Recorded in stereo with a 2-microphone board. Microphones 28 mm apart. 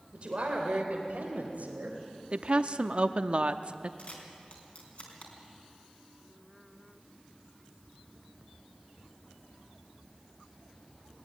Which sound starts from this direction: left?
A camera shutter, at 4.0 s.